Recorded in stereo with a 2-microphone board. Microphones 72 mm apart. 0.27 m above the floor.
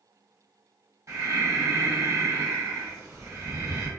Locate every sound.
1.1 s breathing: 45° right (ahead or behind), 1.6 m